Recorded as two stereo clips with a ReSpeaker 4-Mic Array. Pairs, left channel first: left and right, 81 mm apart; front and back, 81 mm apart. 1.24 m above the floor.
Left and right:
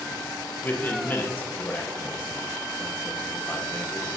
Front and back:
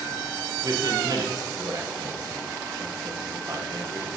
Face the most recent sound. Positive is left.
turn(degrees=150)